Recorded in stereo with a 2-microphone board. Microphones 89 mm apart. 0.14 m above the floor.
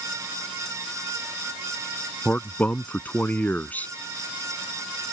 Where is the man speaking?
20° left (ahead or behind).